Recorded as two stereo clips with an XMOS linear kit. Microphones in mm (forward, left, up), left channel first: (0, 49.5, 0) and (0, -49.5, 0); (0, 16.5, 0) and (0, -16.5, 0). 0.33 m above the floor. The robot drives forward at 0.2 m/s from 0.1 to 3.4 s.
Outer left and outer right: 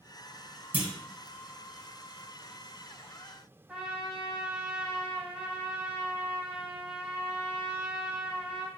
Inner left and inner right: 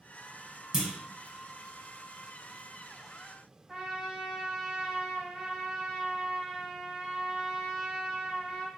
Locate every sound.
0.7 s a clunk: 15° right (ahead or behind), 0.8 m
3.7 s a trumpet: 10° right (ahead or behind), 0.8 m